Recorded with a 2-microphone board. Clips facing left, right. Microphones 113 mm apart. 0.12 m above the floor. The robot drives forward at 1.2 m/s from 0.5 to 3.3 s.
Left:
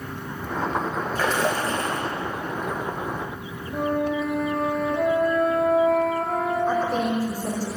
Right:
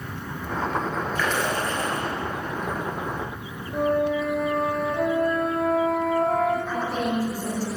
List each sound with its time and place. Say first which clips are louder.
1.1 s a splash: left 3 dB; 40° left (ahead or behind), 4.5 m; by 2.0 s 30° left (ahead or behind), 5 m
3.7 s a flute: right 2 dB; centre (ahead or behind), 3 m
6.7 s a woman speaking: left 3 dB; 40° left (ahead or behind), 6 m